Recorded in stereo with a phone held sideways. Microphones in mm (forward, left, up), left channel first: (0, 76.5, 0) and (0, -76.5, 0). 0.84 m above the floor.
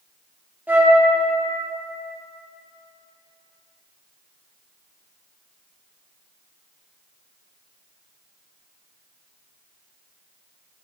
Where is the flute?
10° right (ahead or behind), 0.9 m.